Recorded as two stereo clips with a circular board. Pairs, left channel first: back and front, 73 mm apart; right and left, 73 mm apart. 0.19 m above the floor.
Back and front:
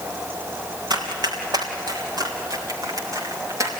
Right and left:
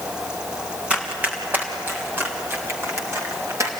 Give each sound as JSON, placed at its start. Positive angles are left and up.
{"t": 0.9, "sound": "running footsteps", "azimuth_deg": 20, "distance_m": 5.0}